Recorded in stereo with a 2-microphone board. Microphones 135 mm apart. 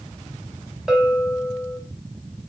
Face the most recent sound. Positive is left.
turn(degrees=-5)  # may be behind; listen again after turning